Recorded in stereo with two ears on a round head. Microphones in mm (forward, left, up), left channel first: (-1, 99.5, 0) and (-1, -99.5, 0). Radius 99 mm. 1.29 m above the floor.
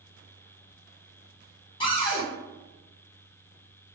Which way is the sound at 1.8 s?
25° left (ahead or behind).